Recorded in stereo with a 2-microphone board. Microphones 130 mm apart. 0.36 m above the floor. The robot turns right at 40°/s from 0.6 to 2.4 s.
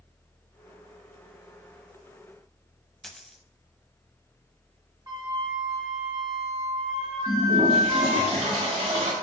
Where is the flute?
30° right (ahead or behind), 1.7 m.